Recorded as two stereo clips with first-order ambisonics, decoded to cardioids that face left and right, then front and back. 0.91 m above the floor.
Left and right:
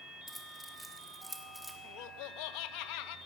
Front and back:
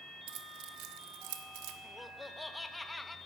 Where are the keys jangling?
175° right, 1.3 m.